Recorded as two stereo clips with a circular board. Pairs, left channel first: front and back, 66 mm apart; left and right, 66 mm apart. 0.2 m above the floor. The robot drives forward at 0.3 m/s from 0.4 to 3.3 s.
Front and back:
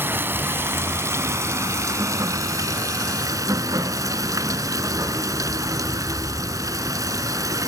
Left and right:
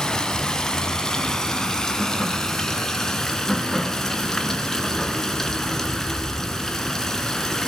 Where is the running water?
165° left, 1.0 m; by 7.7 s 175° left, 1.6 m.